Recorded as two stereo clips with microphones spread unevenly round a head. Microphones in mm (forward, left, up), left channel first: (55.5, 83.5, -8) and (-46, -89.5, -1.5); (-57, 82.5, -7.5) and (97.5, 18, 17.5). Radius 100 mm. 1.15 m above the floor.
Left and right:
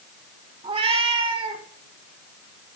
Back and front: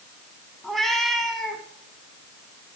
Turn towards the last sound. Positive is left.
turn(degrees=-100)